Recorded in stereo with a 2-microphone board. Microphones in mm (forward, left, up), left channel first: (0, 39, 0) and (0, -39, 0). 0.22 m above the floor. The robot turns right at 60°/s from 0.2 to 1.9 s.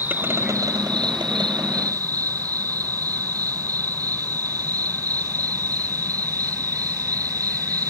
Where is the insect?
155° right; by 7.9 s 50° right.